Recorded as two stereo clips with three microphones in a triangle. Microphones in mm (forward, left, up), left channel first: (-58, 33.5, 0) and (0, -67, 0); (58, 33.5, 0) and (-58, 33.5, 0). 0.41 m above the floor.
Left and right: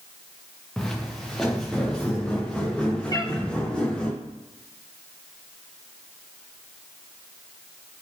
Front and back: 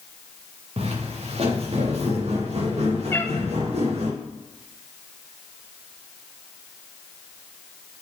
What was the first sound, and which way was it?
Footsteps, 155° right.